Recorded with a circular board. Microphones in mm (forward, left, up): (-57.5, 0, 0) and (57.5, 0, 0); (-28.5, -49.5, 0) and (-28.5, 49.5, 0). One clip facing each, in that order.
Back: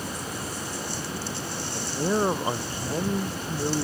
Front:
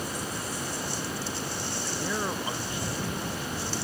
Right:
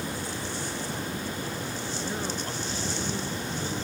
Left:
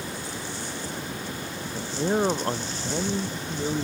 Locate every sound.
1.7 s a man speaking: 125° left; by 3.8 s 140° left